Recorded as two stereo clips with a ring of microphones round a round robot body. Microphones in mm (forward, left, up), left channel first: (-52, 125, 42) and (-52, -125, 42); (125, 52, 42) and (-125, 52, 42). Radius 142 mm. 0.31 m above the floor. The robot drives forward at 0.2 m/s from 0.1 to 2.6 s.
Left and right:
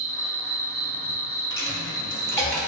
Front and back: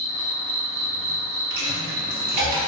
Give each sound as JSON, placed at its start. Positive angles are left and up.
{"t": 0.0, "sound": "an insect", "azimuth_deg": -120, "distance_m": 1.0}
{"t": 1.5, "sound": "a dropped coin", "azimuth_deg": 170, "distance_m": 1.5}